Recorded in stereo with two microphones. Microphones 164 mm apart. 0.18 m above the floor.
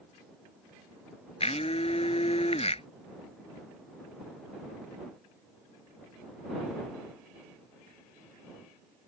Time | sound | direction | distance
1.4 | a blender | 40° left (ahead or behind) | ?